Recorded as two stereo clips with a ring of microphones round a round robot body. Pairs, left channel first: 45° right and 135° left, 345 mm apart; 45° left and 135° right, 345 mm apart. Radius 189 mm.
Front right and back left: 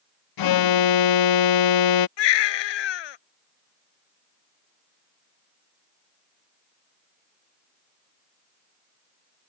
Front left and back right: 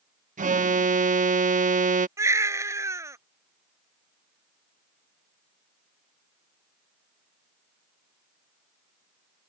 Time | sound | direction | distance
0.4 | an alarm | 65° right | ?
2.2 | a baby crying | 55° right | ?